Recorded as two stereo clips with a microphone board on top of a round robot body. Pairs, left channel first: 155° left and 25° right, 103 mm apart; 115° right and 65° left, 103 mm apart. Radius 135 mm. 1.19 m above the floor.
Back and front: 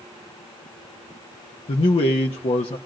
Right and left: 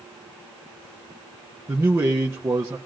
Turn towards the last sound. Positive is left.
turn(degrees=135)